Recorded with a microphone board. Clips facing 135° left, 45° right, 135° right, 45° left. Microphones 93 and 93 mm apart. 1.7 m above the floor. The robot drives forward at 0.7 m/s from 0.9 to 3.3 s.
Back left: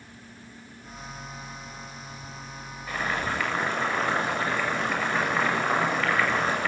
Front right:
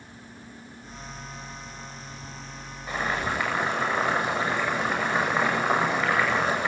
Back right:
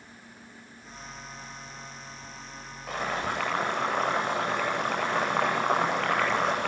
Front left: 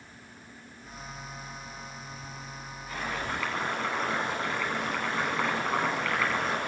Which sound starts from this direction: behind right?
Boiling, at 2.9 s.